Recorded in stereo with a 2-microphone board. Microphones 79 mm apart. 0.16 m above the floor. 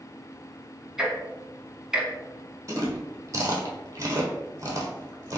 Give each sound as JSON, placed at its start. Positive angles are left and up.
{"t": 1.0, "sound": "ticking", "side_deg": -10, "distance_m": 0.9}
{"t": 2.7, "sound": "chewing", "side_deg": -40, "distance_m": 0.9}